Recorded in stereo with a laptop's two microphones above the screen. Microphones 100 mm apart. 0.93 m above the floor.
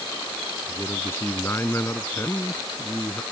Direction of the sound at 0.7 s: 25° left (ahead or behind).